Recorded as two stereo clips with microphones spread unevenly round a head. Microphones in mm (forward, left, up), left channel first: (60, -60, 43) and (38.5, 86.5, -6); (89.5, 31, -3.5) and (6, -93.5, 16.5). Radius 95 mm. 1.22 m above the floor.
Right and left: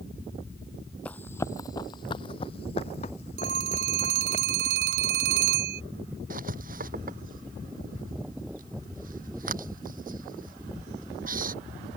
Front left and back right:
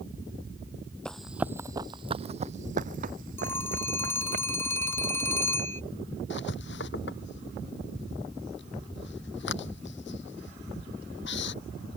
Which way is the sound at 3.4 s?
135° left.